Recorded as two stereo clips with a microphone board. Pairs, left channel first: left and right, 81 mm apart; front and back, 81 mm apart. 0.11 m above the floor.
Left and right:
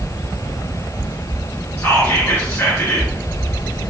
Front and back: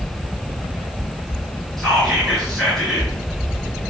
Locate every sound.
1.8 s whispering: 80° left, 1.6 m